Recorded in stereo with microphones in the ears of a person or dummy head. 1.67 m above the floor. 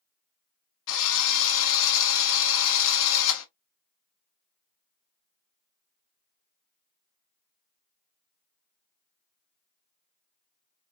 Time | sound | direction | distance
0.9 | a drill | 75° left (ahead or behind) | 1.4 m